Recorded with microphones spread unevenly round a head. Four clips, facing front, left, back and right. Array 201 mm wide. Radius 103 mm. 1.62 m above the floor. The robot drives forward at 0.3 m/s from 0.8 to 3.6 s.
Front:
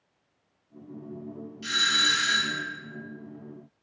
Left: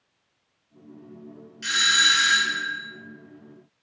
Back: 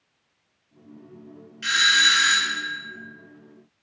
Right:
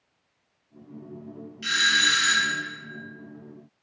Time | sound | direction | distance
1.6 | a doorbell | 170° left | 0.7 m